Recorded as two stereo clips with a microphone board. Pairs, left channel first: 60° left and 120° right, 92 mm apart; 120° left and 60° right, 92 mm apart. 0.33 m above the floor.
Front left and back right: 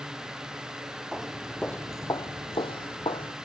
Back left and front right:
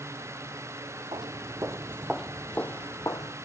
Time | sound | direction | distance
1.1 | footsteps | 35° right | 0.9 m